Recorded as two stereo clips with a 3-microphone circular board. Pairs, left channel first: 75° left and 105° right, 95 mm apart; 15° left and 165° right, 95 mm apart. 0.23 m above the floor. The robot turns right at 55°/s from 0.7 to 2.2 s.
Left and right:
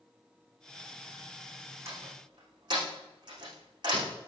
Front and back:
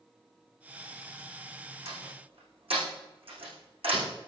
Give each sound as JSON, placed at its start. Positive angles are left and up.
{"t": 1.9, "sound": "a door slam", "azimuth_deg": -165, "distance_m": 9.5}